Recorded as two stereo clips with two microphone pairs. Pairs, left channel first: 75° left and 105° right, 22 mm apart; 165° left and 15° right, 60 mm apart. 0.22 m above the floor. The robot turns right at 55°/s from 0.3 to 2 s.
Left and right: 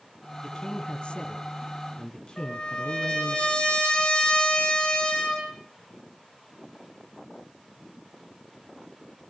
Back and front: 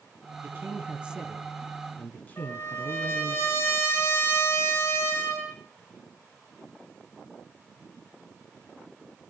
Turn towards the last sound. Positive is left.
turn(degrees=110)